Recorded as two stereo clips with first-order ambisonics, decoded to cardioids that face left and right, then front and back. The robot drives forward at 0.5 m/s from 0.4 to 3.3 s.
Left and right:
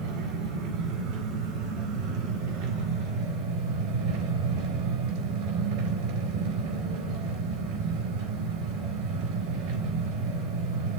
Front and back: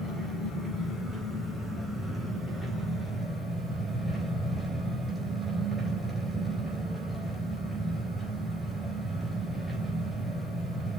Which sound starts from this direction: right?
An engine running, at 0.0 s.